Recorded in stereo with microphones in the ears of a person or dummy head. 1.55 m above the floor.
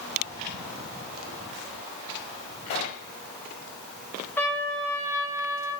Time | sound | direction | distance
2.7 | a pop | 35° left (ahead or behind) | 1.7 m
4.4 | a trumpet | 10° left (ahead or behind) | 3.5 m